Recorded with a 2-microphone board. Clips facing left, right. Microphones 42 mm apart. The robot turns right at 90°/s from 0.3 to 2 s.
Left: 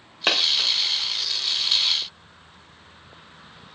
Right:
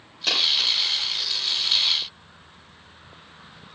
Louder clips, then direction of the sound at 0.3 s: Left 1 dB; 50° left (ahead or behind).